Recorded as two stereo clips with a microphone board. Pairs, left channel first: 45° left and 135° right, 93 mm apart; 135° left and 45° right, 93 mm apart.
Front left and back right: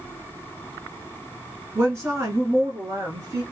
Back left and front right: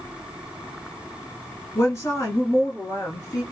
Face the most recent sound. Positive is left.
turn(degrees=180)